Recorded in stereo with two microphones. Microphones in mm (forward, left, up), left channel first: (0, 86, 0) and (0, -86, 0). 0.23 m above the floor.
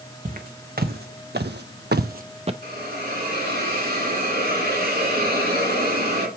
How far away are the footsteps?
About 1.2 m.